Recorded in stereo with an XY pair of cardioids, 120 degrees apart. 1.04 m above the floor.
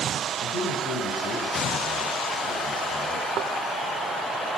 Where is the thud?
65° right, 1.7 m.